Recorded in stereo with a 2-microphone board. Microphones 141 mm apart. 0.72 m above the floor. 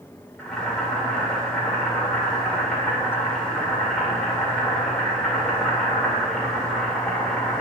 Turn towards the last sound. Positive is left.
turn(degrees=5)  # may be behind; listen again after turning